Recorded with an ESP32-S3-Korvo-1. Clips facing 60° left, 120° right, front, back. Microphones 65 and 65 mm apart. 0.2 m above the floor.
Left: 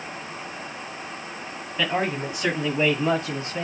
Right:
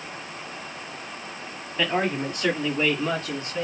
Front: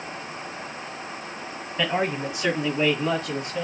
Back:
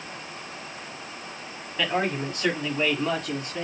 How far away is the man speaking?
About 1.3 m.